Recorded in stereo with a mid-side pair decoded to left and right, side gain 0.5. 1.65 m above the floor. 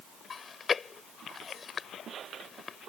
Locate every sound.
0.3 s chewing: 35° left